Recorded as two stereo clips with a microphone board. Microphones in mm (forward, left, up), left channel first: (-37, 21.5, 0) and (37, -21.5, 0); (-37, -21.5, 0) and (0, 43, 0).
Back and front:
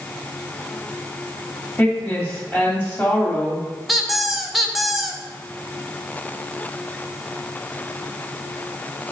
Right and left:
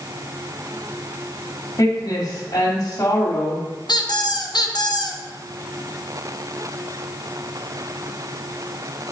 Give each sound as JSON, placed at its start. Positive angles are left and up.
{"t": 1.8, "sound": "a woman speaking", "azimuth_deg": -145, "distance_m": 2.0}
{"t": 3.9, "sound": "a squeak", "azimuth_deg": -120, "distance_m": 0.7}